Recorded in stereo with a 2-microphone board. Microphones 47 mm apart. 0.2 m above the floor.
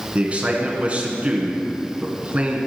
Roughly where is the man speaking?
Right.